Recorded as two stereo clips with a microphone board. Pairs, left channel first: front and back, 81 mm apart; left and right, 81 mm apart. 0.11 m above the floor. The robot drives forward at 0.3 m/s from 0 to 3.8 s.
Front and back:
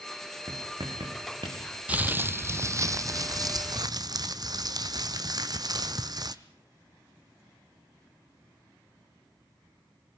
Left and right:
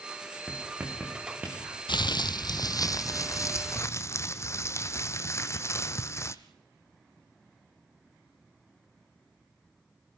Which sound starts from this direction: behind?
Writing, at 0.5 s.